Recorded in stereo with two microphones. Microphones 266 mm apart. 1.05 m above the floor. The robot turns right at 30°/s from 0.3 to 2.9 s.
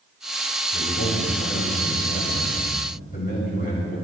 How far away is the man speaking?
About 6 m.